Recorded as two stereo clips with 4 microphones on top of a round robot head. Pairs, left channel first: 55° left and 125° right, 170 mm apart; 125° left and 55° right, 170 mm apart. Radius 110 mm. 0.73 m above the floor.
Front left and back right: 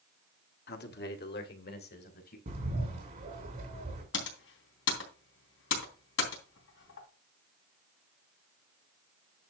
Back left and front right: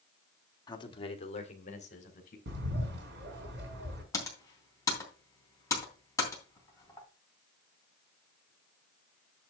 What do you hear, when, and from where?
0.7 s a man speaking: 60° left, 1.6 m; by 2.4 s 80° left, 3.5 m
2.5 s a bird: 75° right, 4 m
4.1 s typing on a keyboard: 50° left, 3 m